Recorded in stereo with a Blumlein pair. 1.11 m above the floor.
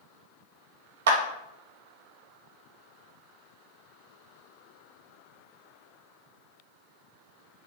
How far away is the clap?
About 0.9 m.